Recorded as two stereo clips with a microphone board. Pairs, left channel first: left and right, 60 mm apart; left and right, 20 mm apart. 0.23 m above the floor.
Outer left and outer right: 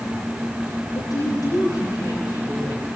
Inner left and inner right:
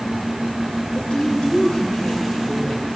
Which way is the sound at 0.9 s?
70° left (ahead or behind).